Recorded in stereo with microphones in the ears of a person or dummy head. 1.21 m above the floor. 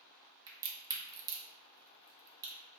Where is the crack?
15° right (ahead or behind), 0.7 m.